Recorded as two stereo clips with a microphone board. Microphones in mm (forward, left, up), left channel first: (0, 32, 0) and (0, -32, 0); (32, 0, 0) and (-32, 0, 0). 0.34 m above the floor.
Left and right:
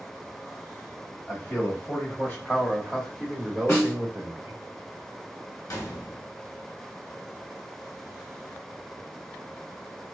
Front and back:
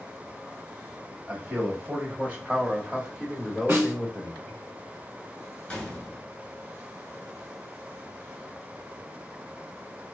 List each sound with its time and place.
1.3 s a man speaking: 120° left, 1.5 m; by 4.6 s 75° right, 1.0 m
3.7 s a snare drum: 125° left, 1.6 m
5.7 s a gunshot: 70° left, 0.9 m